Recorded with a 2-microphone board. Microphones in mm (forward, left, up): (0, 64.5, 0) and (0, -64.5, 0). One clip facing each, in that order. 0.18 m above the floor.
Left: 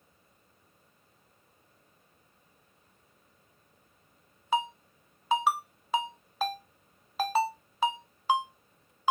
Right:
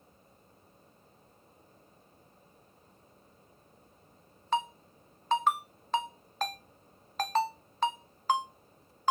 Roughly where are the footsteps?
No footsteps in this recording.